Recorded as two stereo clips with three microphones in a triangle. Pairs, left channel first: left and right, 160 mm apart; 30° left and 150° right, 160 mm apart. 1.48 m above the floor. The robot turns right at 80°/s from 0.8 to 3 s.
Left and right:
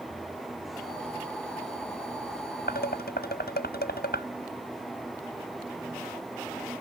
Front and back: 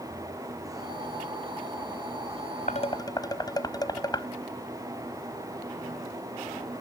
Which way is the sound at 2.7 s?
70° left.